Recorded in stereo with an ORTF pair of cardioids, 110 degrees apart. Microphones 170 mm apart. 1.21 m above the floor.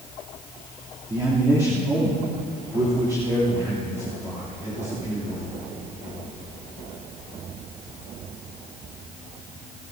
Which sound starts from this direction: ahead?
A man speaking, at 1.1 s.